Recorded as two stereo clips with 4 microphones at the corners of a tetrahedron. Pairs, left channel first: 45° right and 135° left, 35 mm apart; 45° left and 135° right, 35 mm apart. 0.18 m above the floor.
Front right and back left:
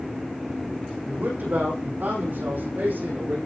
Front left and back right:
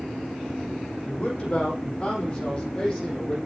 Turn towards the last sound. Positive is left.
turn(degrees=115)